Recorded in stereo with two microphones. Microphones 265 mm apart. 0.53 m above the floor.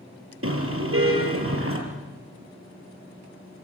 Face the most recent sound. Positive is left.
turn(degrees=-55)  # may be behind; listen again after turning